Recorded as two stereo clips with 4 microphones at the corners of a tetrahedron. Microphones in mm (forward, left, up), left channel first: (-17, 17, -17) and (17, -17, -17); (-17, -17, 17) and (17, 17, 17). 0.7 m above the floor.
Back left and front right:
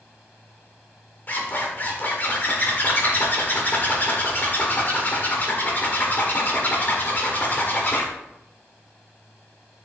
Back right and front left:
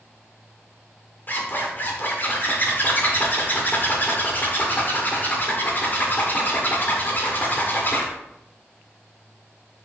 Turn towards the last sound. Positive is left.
turn(degrees=180)